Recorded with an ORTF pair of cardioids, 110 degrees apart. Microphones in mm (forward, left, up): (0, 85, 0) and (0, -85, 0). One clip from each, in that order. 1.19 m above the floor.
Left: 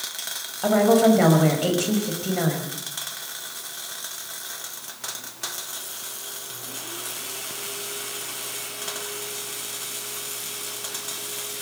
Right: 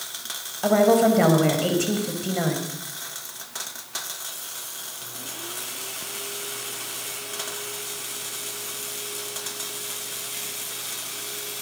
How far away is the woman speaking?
About 5.5 m.